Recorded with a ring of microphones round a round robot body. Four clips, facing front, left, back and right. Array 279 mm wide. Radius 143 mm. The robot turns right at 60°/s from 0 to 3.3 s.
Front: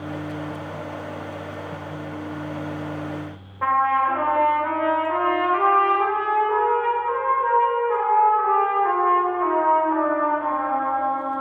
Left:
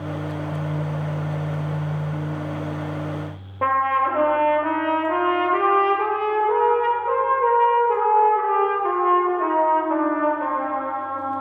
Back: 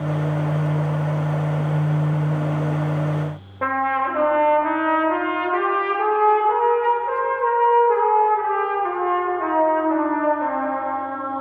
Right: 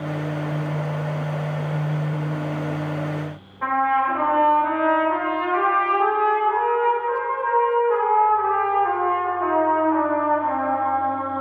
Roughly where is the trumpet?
Behind left.